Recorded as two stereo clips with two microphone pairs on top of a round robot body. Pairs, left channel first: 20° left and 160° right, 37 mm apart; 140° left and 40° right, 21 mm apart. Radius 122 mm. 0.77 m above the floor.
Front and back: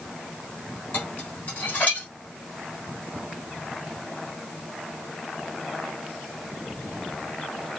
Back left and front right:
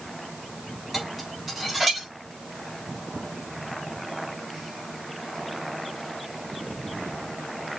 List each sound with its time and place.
0.9 s dishes clattering: 50° left, 3.5 m